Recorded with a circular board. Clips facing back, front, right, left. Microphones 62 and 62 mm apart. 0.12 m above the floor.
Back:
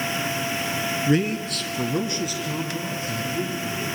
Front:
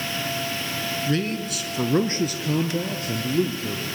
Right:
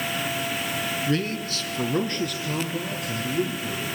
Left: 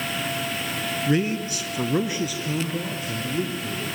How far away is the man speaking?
About 1.1 m.